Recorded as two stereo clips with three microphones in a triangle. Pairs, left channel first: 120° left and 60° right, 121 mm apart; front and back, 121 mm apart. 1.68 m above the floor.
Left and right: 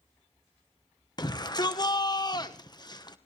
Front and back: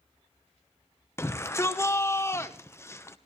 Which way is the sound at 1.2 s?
65° left.